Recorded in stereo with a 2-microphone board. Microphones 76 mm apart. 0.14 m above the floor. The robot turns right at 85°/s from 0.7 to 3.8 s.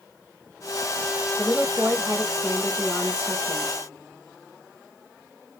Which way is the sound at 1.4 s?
105° right.